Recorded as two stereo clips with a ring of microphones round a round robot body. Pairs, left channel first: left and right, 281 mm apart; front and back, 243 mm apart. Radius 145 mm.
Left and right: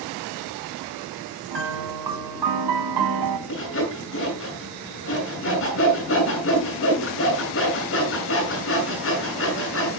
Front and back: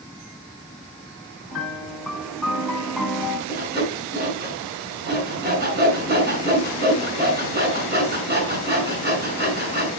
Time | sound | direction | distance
1.5 | a piano | 90° right | 1.3 m
3.5 | sawing | 135° left | 6 m